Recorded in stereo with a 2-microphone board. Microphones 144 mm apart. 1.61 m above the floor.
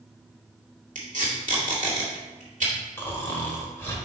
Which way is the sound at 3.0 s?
15° left (ahead or behind).